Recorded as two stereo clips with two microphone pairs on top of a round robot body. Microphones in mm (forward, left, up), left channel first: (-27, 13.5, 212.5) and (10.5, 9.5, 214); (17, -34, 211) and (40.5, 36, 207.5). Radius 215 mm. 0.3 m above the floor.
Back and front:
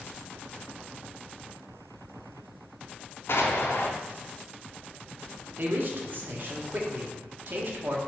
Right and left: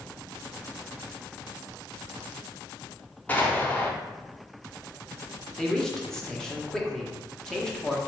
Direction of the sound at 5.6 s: 25° right.